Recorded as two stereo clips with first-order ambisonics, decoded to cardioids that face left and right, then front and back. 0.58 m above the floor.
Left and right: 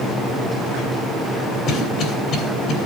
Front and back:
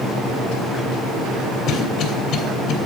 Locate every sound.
1.7 s a cough: 40° left, 3 m